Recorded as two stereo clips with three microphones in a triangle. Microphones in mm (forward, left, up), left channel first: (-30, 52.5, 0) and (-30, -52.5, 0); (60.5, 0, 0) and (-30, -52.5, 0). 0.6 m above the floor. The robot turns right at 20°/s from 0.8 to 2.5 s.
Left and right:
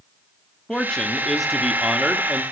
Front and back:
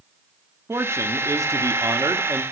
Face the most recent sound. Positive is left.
turn(degrees=-160)